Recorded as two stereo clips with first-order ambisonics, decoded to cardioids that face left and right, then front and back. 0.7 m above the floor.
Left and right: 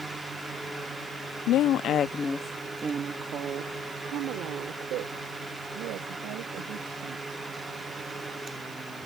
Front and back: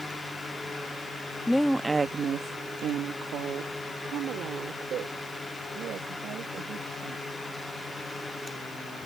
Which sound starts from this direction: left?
A woman speaking, at 1.5 s.